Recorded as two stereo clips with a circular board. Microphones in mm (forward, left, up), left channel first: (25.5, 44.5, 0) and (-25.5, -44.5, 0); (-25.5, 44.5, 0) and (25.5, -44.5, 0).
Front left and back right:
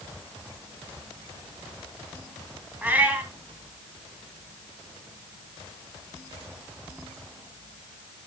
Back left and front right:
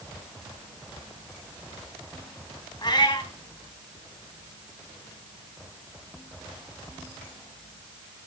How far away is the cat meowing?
About 2.5 m.